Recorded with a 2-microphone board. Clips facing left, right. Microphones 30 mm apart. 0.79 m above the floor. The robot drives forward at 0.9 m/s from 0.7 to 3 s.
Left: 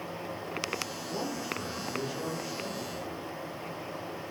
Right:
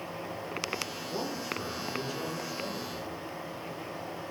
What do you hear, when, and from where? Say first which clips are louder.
1.1 s a man speaking: even; 20° left (ahead or behind), 8.5 m; by 3.1 s 15° left (ahead or behind), 10 m